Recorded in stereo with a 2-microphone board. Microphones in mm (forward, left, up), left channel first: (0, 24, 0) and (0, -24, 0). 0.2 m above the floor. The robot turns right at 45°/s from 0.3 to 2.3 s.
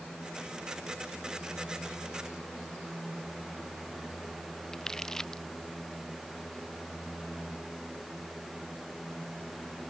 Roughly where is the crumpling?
Centre.